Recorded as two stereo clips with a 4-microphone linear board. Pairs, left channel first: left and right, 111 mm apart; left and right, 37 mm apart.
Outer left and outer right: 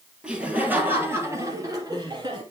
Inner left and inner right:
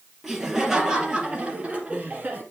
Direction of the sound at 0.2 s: 10° right (ahead or behind).